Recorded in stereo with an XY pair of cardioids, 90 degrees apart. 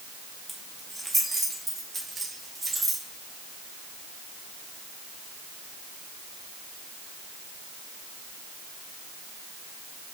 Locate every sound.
0.5 s keys jangling: straight ahead, 2 m; by 3.0 s 30° right, 3.5 m